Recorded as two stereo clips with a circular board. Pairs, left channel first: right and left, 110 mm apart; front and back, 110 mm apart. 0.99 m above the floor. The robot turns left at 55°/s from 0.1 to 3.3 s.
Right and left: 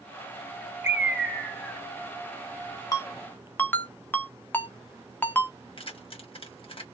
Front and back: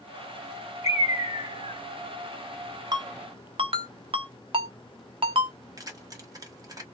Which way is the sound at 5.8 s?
125° right.